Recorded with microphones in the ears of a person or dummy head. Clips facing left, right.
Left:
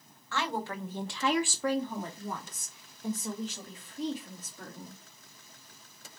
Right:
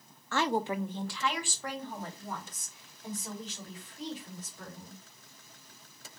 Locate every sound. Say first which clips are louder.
0.3 s a woman speaking: right 4 dB; 40° right (ahead or behind), 0.6 m; by 5.0 s 80° left, 3 m